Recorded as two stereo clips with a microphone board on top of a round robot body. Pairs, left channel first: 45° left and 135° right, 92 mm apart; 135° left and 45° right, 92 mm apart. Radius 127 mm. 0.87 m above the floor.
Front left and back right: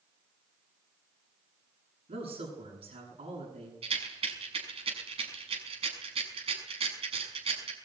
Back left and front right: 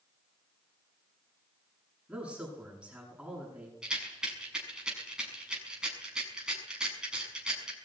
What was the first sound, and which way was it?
A man speaking, 130° right.